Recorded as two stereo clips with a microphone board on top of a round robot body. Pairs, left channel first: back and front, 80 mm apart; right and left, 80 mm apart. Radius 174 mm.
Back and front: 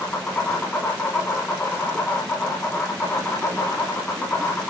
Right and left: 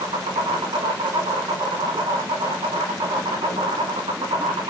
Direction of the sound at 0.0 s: 110° left.